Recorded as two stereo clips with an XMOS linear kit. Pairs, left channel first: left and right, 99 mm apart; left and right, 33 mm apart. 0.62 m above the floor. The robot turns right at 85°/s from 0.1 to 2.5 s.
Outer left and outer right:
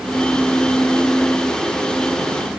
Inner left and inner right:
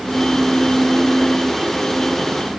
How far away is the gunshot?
No gunshot in this recording.